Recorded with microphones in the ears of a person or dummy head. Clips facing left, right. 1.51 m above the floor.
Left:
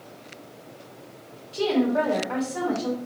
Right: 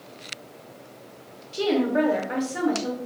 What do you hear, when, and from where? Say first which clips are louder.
1.5 s a woman speaking: even; 15° right (ahead or behind), 0.6 m